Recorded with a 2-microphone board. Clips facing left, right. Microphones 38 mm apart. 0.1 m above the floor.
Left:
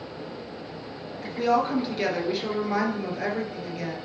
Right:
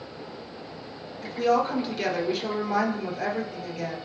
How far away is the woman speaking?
About 1.6 m.